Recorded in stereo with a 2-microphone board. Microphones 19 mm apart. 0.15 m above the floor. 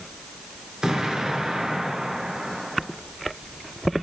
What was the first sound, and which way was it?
An explosion, 45° right (ahead or behind).